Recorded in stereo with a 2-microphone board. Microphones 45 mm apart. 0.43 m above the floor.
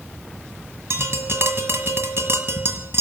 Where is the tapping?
65° right (ahead or behind), 1.5 m.